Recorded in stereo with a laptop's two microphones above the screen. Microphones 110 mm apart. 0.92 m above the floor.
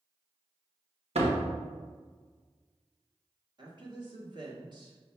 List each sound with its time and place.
1.1 s a door slam: 70° right (ahead or behind), 1.0 m
3.6 s a woman speaking: 40° right (ahead or behind), 1.7 m